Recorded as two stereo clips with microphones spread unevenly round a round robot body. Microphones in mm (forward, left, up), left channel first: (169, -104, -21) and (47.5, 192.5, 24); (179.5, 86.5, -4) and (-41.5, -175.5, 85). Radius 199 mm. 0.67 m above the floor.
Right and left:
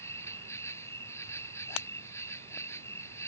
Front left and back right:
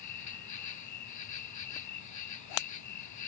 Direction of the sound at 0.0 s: 15° left.